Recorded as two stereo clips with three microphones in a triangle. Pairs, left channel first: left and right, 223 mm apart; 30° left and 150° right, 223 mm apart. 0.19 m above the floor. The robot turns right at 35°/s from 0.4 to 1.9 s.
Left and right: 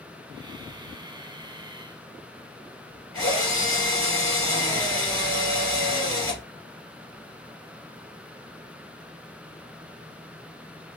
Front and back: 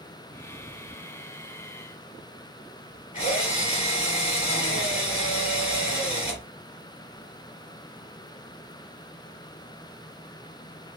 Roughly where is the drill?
Left.